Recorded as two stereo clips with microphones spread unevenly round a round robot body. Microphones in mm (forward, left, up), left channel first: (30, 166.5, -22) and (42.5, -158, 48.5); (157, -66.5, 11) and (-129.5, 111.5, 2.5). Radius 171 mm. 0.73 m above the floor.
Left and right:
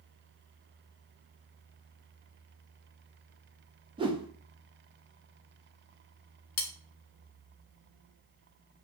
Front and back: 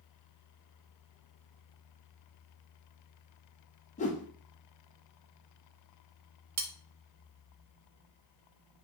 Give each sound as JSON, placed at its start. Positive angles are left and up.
{"t": 4.0, "sound": "a whoosh", "azimuth_deg": -5, "distance_m": 0.7}
{"t": 6.6, "sound": "cutlery clinking", "azimuth_deg": 110, "distance_m": 0.8}